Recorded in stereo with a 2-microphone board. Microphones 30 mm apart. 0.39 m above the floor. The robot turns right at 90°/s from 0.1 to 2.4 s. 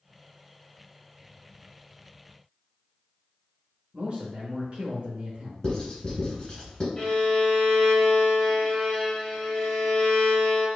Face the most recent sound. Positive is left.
turn(degrees=15)  # may be behind; listen again after turning